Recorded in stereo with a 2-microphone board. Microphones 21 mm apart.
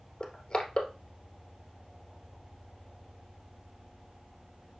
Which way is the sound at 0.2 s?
35° left (ahead or behind).